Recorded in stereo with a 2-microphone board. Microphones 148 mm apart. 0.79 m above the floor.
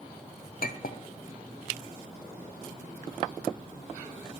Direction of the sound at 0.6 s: 70° left (ahead or behind).